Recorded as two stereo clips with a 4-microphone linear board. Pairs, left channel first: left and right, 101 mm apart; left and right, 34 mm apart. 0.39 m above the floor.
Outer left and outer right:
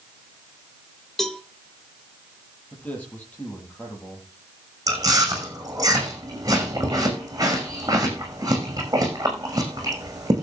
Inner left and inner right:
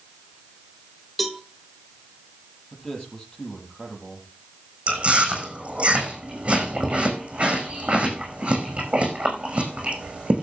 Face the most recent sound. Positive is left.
turn(degrees=-35)  # may be behind; listen again after turning